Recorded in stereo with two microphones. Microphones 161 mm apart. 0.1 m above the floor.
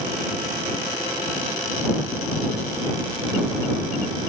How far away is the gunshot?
No gunshot in this recording.